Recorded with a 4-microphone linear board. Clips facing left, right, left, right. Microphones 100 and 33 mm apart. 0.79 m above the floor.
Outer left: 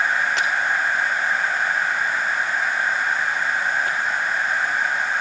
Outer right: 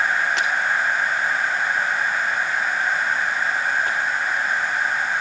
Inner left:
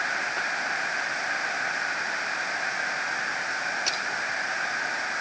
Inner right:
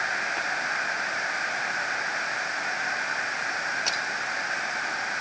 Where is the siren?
No siren in this recording.